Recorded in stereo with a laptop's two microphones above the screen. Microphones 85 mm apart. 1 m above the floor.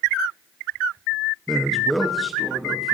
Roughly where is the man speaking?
Centre.